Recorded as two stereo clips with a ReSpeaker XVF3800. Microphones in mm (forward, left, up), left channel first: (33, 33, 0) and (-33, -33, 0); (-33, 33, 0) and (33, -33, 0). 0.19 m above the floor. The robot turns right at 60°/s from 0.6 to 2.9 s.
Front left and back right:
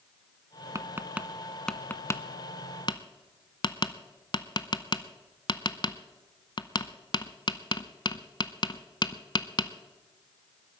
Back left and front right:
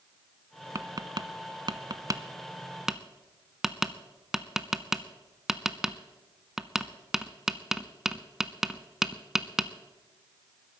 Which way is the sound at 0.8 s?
90° right.